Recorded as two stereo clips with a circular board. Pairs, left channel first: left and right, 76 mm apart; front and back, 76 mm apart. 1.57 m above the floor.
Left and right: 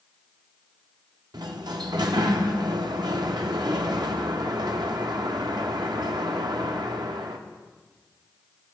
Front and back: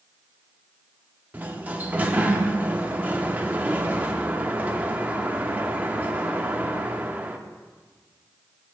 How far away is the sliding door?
About 0.6 m.